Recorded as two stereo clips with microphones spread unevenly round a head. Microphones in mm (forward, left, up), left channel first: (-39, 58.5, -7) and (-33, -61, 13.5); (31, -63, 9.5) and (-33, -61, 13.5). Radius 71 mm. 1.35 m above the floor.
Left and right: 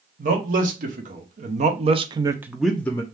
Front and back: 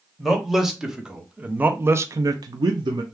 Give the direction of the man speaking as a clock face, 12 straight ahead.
3 o'clock.